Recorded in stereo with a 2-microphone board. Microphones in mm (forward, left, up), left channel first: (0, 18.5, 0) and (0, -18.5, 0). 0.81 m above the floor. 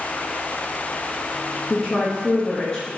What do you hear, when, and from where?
1.7 s a woman speaking: 20° left (ahead or behind), 0.9 m